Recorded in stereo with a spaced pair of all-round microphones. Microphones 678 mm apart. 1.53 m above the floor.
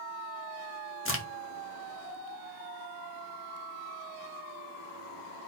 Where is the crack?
20° left (ahead or behind), 0.7 m.